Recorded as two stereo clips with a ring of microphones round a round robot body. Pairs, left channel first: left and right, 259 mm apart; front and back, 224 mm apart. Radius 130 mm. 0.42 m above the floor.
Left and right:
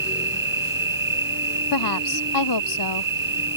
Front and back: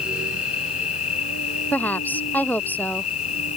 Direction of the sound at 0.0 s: 40° right.